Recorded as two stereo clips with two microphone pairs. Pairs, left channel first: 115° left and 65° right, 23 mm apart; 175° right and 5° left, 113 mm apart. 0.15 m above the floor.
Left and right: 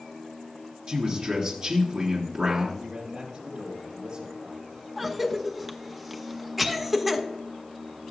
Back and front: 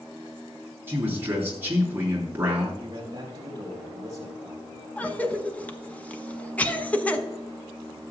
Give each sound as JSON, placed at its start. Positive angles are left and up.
{"t": 0.9, "sound": "a man speaking", "azimuth_deg": -60, "distance_m": 2.5}
{"t": 2.8, "sound": "a man speaking", "azimuth_deg": -45, "distance_m": 5.0}
{"t": 5.0, "sound": "a cough", "azimuth_deg": -125, "distance_m": 1.1}